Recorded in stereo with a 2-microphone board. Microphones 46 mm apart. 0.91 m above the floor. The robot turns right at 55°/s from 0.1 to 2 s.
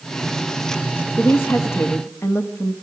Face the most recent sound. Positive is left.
turn(degrees=105)